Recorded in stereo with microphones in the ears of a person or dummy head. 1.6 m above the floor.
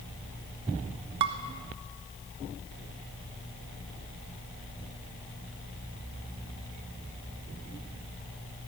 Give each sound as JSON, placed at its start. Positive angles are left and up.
{"t": 1.2, "sound": "dishes clattering", "side_deg": -25, "distance_m": 0.7}